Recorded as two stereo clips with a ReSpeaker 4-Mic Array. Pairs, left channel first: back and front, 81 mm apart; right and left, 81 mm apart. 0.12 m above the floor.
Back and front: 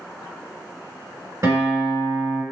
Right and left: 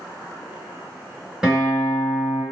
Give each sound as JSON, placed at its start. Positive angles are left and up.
{"t": 1.4, "sound": "a guitar", "azimuth_deg": 10, "distance_m": 1.7}